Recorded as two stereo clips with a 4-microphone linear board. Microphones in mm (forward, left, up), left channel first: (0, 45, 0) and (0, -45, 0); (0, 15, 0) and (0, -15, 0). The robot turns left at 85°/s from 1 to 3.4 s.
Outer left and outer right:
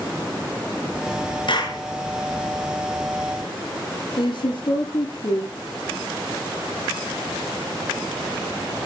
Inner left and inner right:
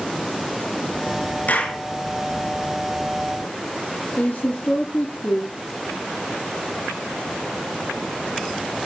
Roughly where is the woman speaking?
Left.